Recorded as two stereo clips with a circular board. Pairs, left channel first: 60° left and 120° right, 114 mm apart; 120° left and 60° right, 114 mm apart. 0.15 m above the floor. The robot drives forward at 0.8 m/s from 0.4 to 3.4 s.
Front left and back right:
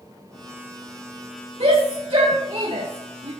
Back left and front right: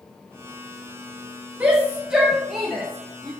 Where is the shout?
135° right, 2 m; by 3.3 s 155° right, 3 m.